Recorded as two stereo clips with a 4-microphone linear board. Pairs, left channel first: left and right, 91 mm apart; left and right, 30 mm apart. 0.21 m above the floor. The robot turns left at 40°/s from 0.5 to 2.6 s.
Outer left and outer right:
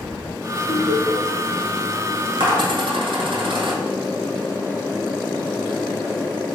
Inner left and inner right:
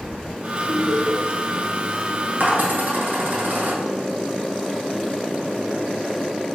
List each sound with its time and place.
0.7 s laughter: 40° left (ahead or behind), 1.7 m; by 1.2 s 35° left (ahead or behind), 1.7 m
2.4 s a dropped coin: 70° right (ahead or behind), 1.2 m